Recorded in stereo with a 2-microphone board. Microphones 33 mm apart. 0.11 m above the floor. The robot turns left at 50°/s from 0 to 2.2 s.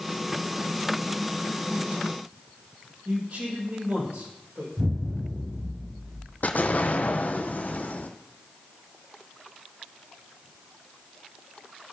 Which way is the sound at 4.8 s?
65° right (ahead or behind).